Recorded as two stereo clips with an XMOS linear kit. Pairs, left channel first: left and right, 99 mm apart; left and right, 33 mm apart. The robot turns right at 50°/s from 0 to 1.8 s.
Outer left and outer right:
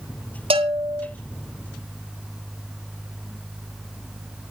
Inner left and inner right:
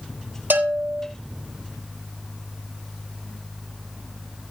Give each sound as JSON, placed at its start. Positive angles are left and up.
{"t": 0.5, "sound": "a bell", "side_deg": -70, "distance_m": 3.5}